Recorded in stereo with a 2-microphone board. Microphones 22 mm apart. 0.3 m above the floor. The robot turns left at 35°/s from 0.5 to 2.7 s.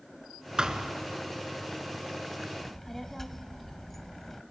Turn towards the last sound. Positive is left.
turn(degrees=10)  # may be behind; listen again after turning